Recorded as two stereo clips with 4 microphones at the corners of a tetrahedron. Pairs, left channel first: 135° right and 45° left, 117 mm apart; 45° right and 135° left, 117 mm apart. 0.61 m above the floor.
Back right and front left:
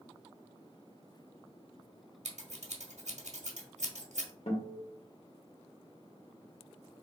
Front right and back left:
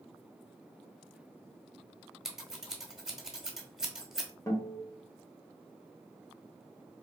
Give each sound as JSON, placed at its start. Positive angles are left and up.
{"t": 2.2, "sound": "scissors", "azimuth_deg": 50, "distance_m": 0.9}
{"t": 4.5, "sound": "a guitar", "azimuth_deg": -110, "distance_m": 1.1}